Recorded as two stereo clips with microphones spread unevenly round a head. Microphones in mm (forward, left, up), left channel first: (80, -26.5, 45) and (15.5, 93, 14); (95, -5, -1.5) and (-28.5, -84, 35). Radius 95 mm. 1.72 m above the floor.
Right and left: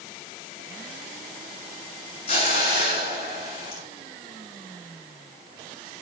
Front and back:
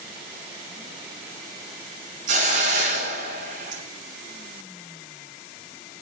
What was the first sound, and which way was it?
A hiss, 120° right.